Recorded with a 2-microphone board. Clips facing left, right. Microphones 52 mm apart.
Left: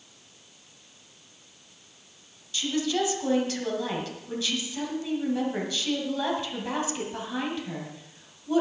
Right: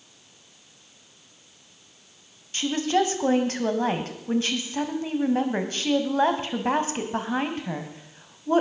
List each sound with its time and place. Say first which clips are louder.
2.5 s a woman speaking: right 4 dB; 45° right (ahead or behind), 2 m